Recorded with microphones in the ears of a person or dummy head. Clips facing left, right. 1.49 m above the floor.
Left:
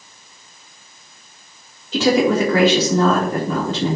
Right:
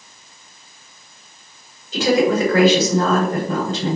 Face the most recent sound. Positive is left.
turn(degrees=65)  # may be behind; listen again after turning